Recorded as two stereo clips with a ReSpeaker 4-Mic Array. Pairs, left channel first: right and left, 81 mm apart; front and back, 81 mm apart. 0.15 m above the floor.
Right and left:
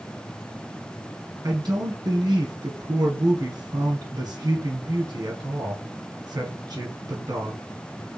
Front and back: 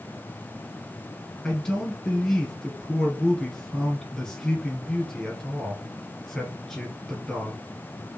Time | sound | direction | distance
1.4 | a man speaking | 80° left | 1.7 m